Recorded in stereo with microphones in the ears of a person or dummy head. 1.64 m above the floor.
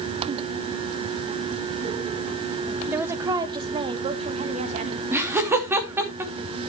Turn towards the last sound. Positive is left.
turn(degrees=-10)  # may be behind; listen again after turning